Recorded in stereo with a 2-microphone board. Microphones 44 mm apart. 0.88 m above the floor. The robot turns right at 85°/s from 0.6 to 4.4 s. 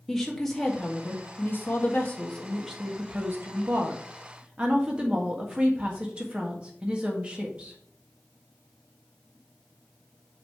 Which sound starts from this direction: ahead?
A woman speaking, at 0.1 s.